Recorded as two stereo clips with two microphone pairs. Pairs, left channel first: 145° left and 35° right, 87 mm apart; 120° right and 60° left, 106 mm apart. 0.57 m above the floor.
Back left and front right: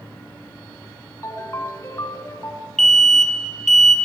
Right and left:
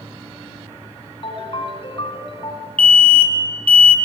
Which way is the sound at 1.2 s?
160° right.